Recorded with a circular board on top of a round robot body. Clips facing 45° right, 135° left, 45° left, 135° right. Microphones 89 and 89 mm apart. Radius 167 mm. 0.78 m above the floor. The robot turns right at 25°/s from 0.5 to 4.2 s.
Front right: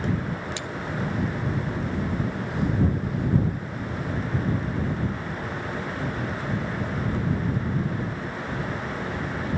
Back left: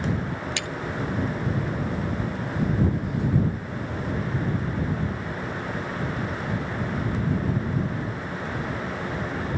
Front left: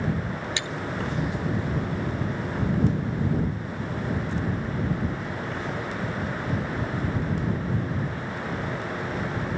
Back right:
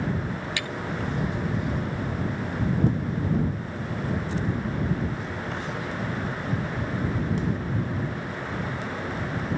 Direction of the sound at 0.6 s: 110° left.